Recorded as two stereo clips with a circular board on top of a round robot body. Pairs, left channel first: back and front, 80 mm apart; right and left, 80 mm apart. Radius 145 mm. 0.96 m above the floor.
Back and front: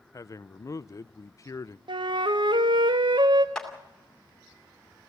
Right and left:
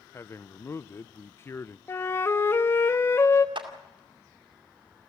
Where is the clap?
100° left, 2 m.